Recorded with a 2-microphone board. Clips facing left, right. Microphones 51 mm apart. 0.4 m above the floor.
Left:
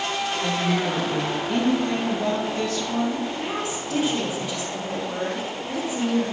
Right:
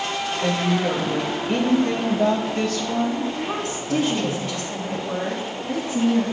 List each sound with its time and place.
0.4 s a woman speaking: 55° right (ahead or behind), 1.8 m
3.4 s a woman speaking: 50° right (ahead or behind), 3 m